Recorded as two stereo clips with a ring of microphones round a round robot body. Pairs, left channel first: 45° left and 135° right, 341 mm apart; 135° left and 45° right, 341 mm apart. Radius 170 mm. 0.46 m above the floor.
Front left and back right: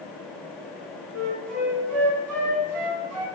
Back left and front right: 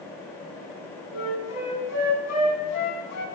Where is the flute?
175° right, 2 m.